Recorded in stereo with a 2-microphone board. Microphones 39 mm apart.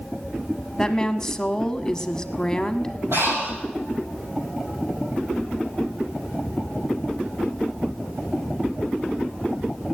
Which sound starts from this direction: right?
Breathing, at 3.1 s.